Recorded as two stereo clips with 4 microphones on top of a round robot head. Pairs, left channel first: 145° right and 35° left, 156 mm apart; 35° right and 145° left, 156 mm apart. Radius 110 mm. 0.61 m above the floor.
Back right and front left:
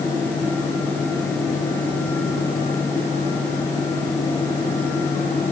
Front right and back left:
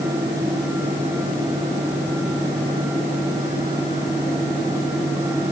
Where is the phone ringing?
No phone ringing in this recording.